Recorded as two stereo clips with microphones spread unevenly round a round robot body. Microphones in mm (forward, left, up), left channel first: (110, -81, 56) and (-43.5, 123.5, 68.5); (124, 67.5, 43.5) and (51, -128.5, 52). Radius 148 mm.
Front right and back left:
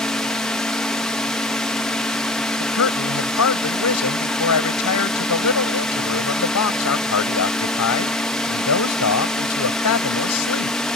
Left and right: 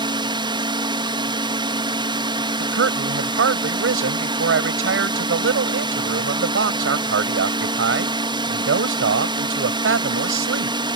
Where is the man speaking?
90° right.